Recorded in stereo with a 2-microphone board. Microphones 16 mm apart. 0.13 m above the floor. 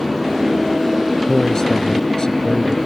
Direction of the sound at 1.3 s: 35° left (ahead or behind).